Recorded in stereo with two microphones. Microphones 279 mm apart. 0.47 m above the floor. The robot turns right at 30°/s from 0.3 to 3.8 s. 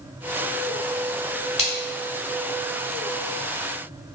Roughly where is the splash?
Left.